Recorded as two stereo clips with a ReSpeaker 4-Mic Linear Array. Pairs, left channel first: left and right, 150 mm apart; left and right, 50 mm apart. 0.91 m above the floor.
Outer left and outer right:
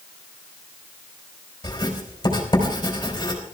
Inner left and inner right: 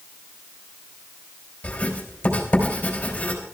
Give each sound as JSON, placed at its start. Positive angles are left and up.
{"t": 1.6, "sound": "writing", "side_deg": 30, "distance_m": 4.0}